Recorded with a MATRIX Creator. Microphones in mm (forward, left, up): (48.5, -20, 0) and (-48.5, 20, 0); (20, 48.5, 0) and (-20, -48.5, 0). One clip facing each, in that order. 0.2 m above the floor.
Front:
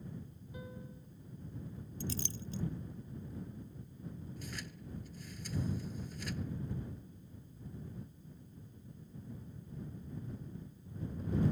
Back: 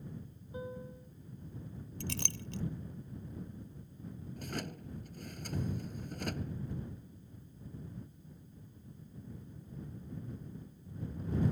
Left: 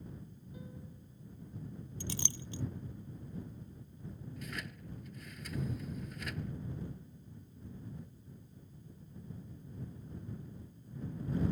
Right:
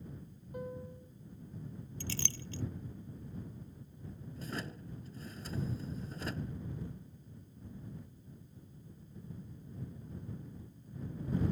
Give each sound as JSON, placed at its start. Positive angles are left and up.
{"t": 0.5, "sound": "a piano", "azimuth_deg": -140}
{"t": 2.0, "sound": "a clink", "azimuth_deg": 140}
{"t": 4.4, "sound": "a drawer", "azimuth_deg": -170}